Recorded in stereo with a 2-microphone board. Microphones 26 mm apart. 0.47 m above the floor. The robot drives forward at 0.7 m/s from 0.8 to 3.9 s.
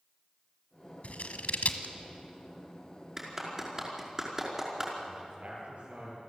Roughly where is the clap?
Centre.